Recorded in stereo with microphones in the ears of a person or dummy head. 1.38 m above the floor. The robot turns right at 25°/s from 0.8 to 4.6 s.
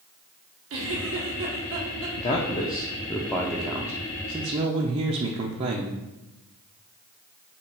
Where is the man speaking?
150° left, 0.6 m; by 6.0 s 150° right, 0.6 m.